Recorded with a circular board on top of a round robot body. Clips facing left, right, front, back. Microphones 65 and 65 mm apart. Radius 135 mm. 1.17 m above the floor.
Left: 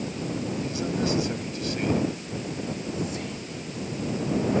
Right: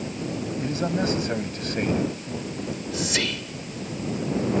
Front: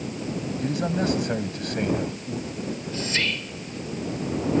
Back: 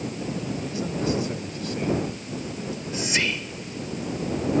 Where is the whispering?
105° right.